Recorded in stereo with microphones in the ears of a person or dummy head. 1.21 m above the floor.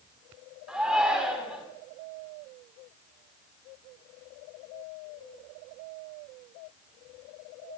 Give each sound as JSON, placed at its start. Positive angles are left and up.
{"t": 0.7, "sound": "a shout", "side_deg": -5, "distance_m": 4.5}